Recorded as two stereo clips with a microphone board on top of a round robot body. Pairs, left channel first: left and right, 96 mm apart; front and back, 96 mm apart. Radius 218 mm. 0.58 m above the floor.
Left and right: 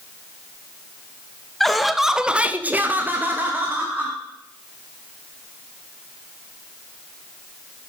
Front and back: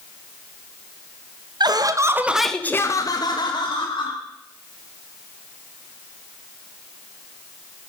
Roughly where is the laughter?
Behind.